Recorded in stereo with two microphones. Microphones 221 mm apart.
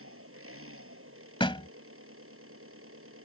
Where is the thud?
25° left (ahead or behind).